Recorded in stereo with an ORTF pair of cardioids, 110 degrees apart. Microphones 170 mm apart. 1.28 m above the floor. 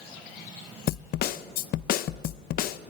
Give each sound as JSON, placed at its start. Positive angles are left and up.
{"t": 0.9, "sound": "a snare drum", "azimuth_deg": 65, "distance_m": 0.7}